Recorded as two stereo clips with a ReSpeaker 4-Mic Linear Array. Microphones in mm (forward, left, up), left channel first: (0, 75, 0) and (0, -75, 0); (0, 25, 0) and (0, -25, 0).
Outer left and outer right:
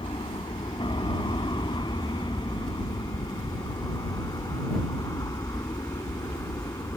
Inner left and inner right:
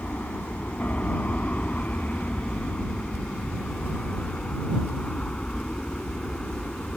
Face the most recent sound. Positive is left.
turn(degrees=20)  # may be behind; listen again after turning